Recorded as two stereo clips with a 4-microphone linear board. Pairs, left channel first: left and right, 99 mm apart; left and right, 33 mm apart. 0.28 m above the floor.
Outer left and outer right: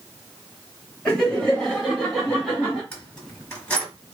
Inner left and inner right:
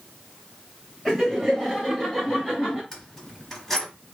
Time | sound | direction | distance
1.1 | laughter | 10° left (ahead or behind) | 1.6 m
2.9 | keys jangling | 20° left (ahead or behind) | 1.0 m